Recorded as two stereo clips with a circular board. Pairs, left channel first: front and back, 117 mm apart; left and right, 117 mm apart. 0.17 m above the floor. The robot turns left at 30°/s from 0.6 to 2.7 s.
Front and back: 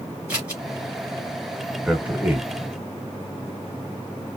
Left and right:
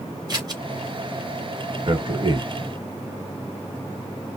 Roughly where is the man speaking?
Right.